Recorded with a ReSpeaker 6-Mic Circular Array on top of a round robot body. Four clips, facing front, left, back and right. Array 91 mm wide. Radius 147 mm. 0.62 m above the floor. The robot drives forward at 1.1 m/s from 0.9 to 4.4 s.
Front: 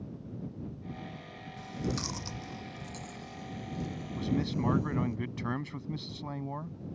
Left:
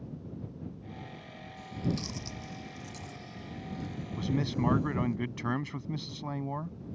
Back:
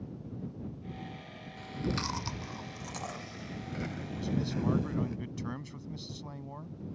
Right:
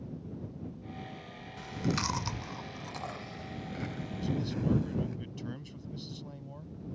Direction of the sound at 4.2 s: 65° left.